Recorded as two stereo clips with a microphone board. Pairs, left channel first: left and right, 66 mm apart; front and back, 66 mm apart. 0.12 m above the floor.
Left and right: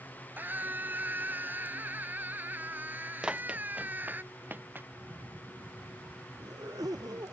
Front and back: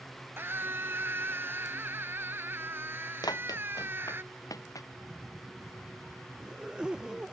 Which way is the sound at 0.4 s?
140° right.